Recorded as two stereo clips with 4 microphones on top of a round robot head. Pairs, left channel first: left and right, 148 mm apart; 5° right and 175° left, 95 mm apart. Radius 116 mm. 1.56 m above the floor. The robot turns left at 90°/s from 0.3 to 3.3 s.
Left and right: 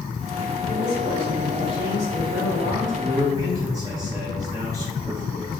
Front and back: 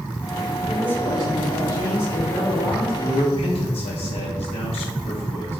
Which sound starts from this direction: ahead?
A man speaking, at 3.0 s.